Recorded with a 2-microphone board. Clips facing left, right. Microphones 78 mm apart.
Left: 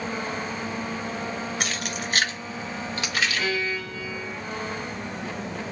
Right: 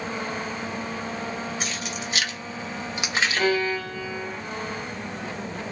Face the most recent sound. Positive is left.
turn(degrees=-50)  # may be behind; listen again after turning